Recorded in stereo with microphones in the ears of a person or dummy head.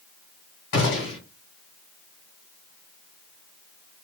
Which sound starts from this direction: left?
A gunshot, at 0.7 s.